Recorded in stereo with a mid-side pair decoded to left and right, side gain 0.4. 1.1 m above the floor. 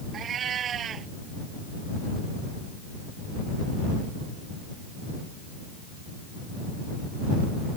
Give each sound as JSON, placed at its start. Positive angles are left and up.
{"t": 0.1, "sound": "a cat meowing", "azimuth_deg": -60}